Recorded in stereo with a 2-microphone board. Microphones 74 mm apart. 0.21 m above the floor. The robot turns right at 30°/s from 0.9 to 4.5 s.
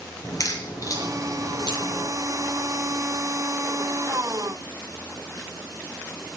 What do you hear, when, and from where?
0.2 s a crack: 45° left (ahead or behind), 4 m; by 2.1 s 70° left (ahead or behind), 4 m